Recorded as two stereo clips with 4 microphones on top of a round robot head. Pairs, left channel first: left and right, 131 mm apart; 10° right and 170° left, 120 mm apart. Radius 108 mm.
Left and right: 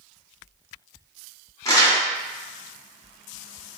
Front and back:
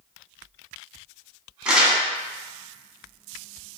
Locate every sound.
1.6 s crumpling: 95° left, 1.3 m